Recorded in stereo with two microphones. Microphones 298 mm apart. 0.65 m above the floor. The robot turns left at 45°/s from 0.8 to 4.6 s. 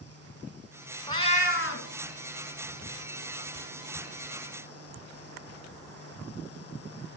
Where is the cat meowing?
170° left, 1.8 m; by 1.9 s 130° left, 1.8 m.